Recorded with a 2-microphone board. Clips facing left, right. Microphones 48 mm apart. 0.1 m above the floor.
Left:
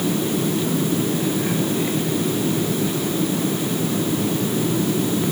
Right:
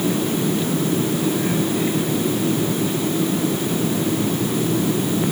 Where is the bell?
No bell in this recording.